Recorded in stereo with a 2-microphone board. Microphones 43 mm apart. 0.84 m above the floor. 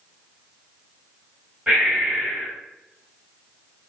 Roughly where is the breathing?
Right.